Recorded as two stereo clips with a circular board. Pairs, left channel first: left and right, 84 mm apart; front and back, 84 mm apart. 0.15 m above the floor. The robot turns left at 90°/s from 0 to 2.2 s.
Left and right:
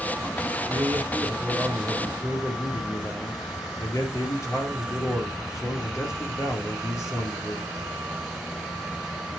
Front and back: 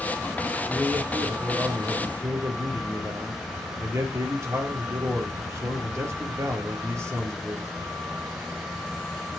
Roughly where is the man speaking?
Right.